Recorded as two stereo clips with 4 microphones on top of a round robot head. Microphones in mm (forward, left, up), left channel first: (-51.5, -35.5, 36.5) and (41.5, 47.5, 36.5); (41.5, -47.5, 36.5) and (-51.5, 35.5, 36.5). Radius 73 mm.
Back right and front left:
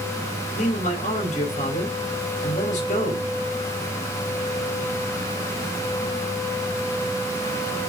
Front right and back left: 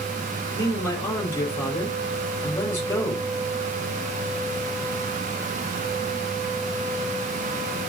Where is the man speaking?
115° right, 4.5 m.